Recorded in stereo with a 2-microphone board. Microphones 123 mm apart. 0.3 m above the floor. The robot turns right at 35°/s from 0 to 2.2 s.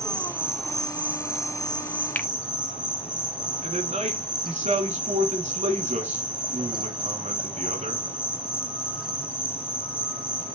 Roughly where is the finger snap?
Centre.